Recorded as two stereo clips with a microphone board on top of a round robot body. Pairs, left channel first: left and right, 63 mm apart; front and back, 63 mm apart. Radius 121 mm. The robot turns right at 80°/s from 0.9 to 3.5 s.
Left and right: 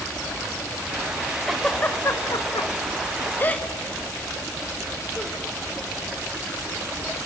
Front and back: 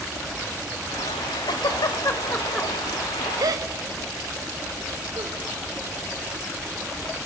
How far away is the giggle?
About 2 m.